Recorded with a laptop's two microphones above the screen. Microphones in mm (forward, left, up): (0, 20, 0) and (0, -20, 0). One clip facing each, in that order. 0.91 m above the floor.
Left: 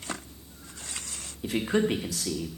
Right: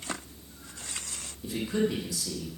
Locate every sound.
1.4 s a man speaking: 55° left (ahead or behind), 1.2 m